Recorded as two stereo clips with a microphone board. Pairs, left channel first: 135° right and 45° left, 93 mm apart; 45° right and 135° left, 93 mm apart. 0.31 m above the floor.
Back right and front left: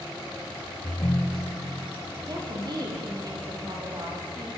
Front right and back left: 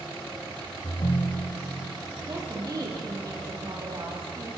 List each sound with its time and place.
0.8 s a ringtone: 75° right, 1.3 m
2.3 s a woman speaking: 90° left, 9.5 m